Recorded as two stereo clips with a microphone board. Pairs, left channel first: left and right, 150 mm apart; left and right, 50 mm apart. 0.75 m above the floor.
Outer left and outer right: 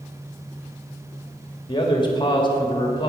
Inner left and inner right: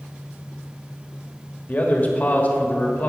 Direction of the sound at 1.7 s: 30° left (ahead or behind).